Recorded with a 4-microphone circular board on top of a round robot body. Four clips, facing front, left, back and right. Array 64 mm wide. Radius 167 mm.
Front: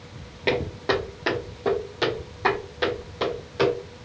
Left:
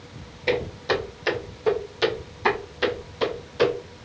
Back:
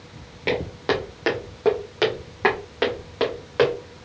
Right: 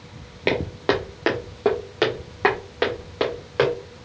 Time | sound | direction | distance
0.5 | footsteps | 90° right | 0.6 m